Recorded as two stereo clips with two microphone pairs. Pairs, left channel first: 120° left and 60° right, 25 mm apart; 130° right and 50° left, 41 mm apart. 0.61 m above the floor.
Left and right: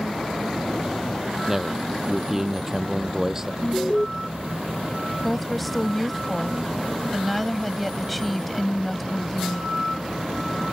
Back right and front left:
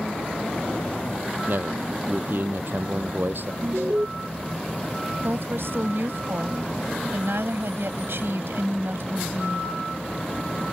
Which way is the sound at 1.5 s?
15° left.